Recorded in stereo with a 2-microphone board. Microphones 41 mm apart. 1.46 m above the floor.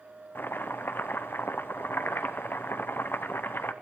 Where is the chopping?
60° left (ahead or behind), 0.8 m.